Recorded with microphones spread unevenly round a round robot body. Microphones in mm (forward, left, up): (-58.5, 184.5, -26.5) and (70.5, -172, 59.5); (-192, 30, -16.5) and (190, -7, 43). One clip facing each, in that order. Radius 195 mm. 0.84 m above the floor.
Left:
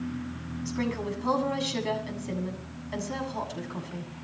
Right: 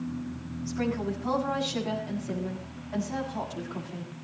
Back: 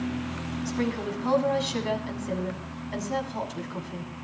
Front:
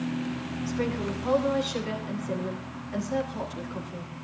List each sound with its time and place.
0.7 s a woman speaking: 155° left, 8 m